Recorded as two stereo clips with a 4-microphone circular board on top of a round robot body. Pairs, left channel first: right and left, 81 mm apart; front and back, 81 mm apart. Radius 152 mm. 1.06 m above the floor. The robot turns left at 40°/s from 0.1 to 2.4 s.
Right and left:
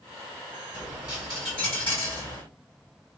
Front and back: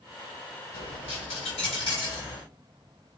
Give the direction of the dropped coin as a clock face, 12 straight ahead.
11 o'clock.